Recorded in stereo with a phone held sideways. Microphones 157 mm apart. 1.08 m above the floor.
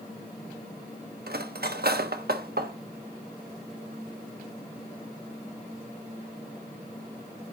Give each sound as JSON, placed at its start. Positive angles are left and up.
{"t": 1.3, "sound": "cutlery clinking", "side_deg": -75, "distance_m": 0.9}